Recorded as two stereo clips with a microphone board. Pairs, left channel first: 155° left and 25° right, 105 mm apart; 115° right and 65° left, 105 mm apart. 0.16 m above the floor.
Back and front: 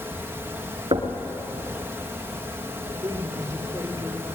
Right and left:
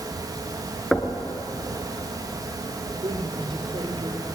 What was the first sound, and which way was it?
Knocking, 25° right.